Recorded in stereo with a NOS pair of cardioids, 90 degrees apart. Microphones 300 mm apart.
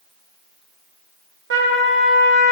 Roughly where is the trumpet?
Ahead right.